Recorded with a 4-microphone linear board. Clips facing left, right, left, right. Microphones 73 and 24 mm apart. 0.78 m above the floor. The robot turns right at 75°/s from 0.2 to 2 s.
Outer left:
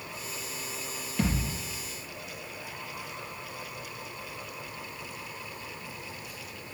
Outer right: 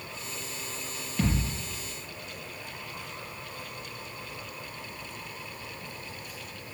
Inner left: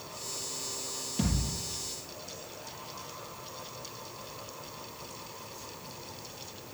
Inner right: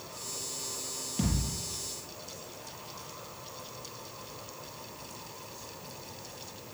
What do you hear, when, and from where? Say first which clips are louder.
1.2 s a thud: outer right 1 dB, even; centre (ahead or behind), 6 m; by 1.6 s 30° right (ahead or behind), 6 m